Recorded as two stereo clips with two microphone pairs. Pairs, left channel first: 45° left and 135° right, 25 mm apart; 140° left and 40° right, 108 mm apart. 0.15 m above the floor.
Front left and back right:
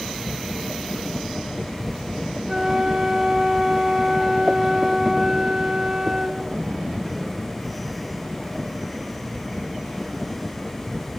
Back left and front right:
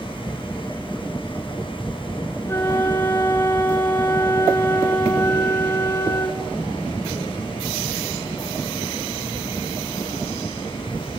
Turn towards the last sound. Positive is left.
turn(degrees=-175)